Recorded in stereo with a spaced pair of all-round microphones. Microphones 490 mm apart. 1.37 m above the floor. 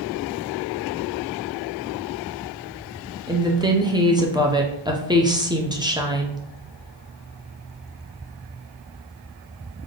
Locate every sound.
3.3 s a woman speaking: 10° right (ahead or behind), 0.6 m